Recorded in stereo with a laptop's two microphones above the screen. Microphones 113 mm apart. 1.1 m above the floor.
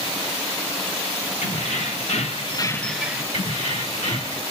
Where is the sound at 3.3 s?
90° left, 2 m.